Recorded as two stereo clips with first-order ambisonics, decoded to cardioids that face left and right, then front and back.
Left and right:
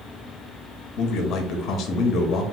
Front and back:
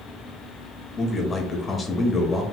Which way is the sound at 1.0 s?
65° left.